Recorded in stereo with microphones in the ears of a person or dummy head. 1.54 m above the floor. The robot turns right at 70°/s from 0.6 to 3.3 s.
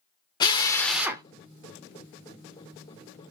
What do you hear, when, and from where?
0.4 s a drill: 155° left, 0.6 m; by 1.2 s 160° right, 0.6 m